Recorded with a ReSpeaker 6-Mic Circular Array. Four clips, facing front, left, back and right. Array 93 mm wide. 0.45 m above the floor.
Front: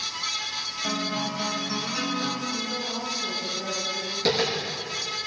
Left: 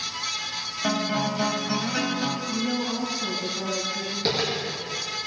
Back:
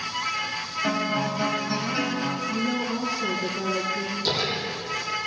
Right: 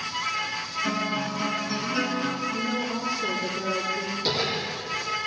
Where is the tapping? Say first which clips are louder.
Left 2 dB, front 5 dB; 45° left, 8 m.